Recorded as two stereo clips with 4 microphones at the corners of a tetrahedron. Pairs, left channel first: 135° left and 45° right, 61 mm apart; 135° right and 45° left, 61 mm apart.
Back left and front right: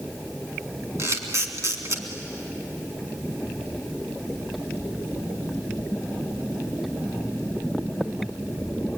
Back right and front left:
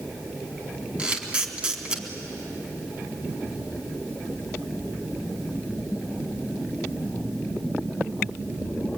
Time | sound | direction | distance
1.0 | a camera shutter | 20° right | 2.5 m